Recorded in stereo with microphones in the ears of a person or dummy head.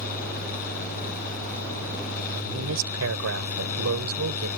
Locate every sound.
0.0 s a fan: 50° left (ahead or behind)
2.3 s a woman speaking: 85° right